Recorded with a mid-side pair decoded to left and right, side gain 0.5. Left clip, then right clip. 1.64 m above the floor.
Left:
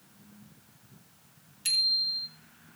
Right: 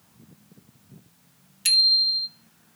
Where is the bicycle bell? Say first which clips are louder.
Right 8 dB; 50° right, 4 m.